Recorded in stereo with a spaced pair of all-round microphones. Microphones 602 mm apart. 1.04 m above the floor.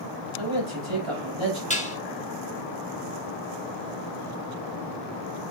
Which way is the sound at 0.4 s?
55° right (ahead or behind).